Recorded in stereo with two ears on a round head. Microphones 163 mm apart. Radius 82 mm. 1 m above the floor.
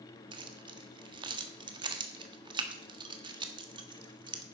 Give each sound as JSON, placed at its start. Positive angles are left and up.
{"t": 0.3, "sound": "keys jangling", "side_deg": -25, "distance_m": 1.4}